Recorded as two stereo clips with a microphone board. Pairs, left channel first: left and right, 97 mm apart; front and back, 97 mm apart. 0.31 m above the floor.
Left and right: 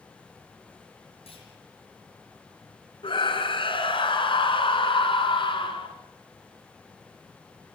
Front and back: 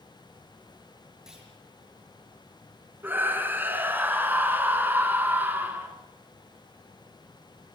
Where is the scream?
110° left, 3.5 m.